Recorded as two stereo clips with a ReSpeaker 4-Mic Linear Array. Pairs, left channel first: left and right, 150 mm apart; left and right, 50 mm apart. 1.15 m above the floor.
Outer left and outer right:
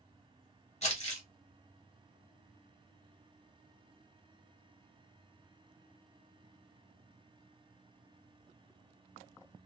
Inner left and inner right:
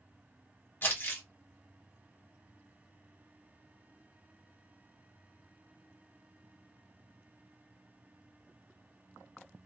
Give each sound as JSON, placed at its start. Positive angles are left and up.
{"t": 0.8, "sound": "crumpling", "side_deg": 45, "distance_m": 1.1}